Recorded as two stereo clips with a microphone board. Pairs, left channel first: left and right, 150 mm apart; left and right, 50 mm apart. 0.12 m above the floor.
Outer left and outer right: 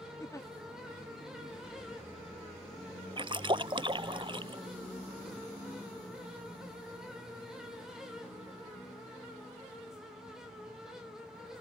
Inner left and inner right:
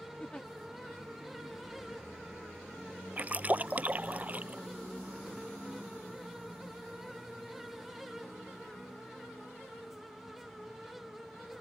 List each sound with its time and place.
0.2 s a giggle: 20° left (ahead or behind)
3.2 s a splash: 35° right (ahead or behind)